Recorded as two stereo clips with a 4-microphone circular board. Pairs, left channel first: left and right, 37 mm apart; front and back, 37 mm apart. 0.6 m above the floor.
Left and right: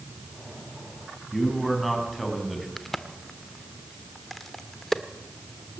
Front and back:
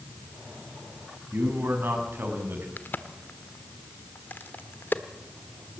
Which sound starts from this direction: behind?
A man speaking, at 1.3 s.